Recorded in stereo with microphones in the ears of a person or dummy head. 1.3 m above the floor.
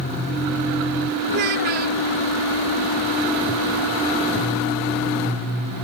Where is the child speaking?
45° right (ahead or behind).